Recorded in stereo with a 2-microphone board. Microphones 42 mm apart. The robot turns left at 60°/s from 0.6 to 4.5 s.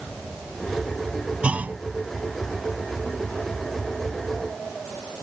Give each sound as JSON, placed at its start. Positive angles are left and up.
{"t": 1.4, "sound": "a clunk", "side_deg": -30}